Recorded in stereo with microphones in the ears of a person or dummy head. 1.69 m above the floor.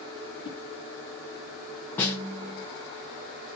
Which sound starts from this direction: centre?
A snare drum, at 2.0 s.